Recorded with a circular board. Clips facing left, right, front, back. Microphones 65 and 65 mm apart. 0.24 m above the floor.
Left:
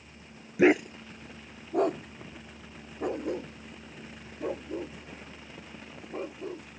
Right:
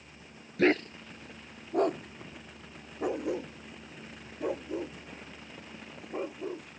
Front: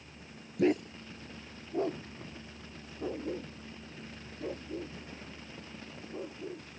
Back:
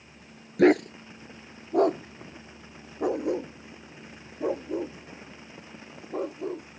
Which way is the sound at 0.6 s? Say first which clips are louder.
Left 4 dB, back 9 dB; 165° left.